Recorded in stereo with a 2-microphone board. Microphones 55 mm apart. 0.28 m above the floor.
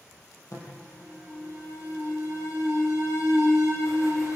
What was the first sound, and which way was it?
An alarm, 75° left (ahead or behind).